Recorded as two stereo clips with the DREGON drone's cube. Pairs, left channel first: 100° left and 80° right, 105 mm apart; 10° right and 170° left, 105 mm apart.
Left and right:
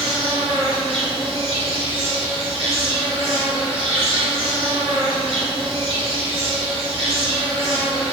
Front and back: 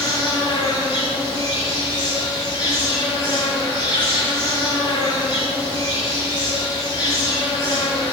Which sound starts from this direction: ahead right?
An insect, at 0.0 s.